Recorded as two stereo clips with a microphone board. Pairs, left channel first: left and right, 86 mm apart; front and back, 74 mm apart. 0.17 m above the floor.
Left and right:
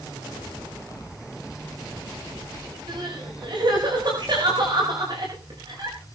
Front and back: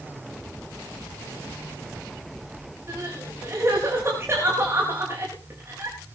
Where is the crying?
125° right, 7.5 m.